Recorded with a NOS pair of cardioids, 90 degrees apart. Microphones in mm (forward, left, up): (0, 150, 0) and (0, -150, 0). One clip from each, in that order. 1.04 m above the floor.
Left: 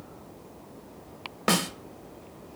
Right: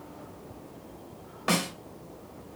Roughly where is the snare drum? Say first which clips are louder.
Left 2 dB; ahead left.